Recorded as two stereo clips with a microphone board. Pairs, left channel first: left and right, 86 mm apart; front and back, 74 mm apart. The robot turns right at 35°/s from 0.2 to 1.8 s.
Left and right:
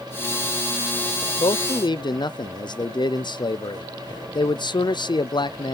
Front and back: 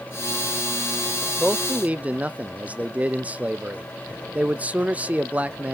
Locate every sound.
1.4 s a man speaking: 100° left, 0.5 m; by 5.8 s 115° left, 0.5 m